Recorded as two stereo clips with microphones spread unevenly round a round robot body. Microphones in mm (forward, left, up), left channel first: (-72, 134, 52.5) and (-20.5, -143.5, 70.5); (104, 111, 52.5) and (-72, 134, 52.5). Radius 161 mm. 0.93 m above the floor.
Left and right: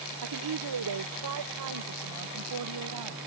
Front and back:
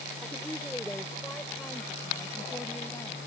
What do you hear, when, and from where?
0.2 s a woman speaking: 95° right; by 3.2 s 90° right